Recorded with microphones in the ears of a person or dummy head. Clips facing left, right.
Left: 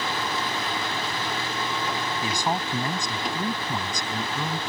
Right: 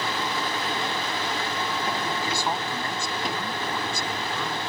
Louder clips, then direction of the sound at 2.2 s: Left 1 dB; 15° left (ahead or behind).